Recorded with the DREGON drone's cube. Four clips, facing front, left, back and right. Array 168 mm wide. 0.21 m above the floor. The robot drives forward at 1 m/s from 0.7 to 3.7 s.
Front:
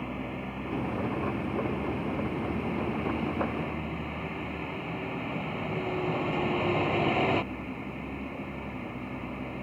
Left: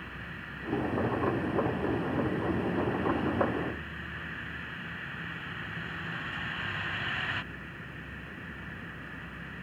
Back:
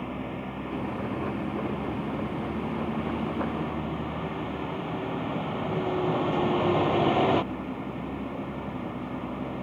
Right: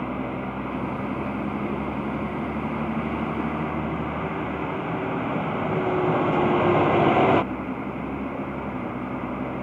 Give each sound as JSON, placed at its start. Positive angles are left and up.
{"t": 0.0, "sound": "a vehicle", "azimuth_deg": -95}